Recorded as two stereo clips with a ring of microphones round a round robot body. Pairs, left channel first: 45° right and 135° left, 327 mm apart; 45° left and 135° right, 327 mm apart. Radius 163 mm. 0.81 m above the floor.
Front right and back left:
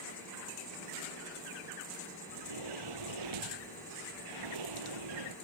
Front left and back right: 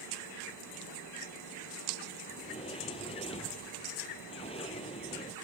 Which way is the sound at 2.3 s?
120° left.